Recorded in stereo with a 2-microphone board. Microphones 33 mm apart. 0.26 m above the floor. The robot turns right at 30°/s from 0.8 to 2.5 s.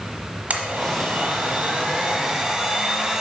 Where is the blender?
65° right, 1.2 m; by 3.2 s 15° right, 1.2 m.